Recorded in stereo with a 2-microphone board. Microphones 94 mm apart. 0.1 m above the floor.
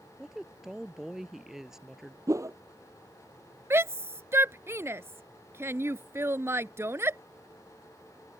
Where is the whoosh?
35° right (ahead or behind).